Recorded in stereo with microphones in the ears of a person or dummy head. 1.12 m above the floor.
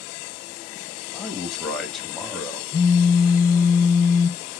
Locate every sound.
1.1 s a man speaking: centre (ahead or behind), 1.1 m
2.7 s a phone buzzing: 20° left (ahead or behind), 0.6 m